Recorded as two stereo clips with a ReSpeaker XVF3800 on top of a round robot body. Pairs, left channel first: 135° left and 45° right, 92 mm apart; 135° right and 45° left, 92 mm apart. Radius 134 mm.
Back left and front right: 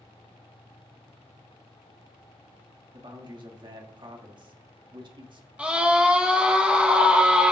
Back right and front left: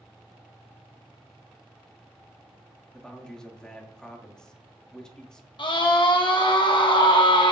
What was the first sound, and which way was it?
A man speaking, 55° right.